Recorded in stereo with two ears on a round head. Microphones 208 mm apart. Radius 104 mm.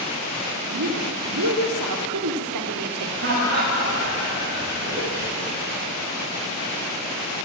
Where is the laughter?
50° right (ahead or behind), 8.5 m.